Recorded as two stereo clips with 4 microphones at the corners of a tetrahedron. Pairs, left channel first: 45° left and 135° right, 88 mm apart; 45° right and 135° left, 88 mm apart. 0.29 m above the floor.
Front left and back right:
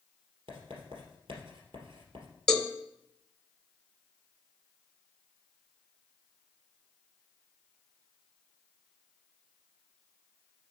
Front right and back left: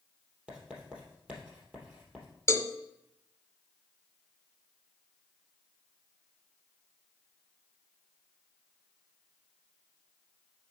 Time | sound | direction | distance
0.5 | writing | 150° right | 3 m
2.5 | a cowbell | 30° right | 0.8 m